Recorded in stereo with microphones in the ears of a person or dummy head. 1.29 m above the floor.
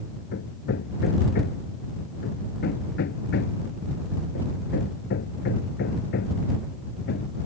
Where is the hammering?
50° left (ahead or behind).